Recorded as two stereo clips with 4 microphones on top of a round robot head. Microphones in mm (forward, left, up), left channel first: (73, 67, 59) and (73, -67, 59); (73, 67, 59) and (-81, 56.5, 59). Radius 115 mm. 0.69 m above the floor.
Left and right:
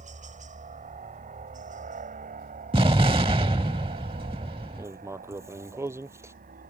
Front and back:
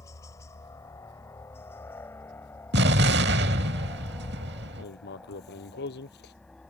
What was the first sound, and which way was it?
A helicopter, 70° right.